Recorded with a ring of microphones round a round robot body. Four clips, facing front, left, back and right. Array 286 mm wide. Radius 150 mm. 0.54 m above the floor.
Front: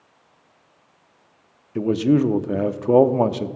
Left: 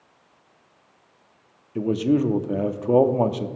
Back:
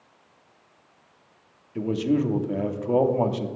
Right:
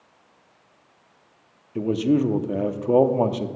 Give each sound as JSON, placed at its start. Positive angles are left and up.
{"t": 1.8, "sound": "a man speaking", "azimuth_deg": 0, "distance_m": 0.8}